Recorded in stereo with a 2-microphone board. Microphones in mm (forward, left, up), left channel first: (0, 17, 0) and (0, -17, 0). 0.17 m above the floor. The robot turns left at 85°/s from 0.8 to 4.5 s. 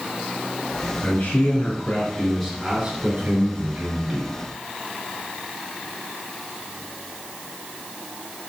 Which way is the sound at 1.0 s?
115° left.